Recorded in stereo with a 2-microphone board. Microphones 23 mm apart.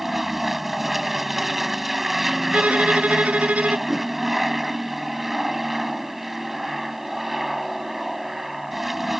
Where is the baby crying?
I don't hear a baby crying.